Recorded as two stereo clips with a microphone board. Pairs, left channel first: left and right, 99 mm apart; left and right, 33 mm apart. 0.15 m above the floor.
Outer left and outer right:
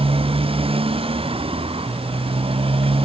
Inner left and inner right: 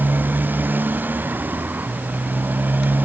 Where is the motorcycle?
65° right (ahead or behind).